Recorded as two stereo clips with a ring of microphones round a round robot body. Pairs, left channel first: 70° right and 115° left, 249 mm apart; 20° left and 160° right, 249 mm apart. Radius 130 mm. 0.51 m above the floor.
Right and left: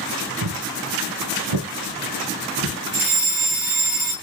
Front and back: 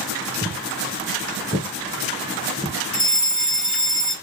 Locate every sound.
0.4 s footsteps: 100° left, 1.1 m; by 2.8 s 120° left, 2.5 m
2.9 s a fire alarm: 130° left, 3 m